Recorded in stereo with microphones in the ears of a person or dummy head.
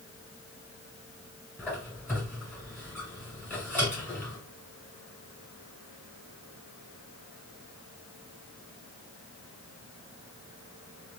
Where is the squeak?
10° left (ahead or behind), 1.7 m.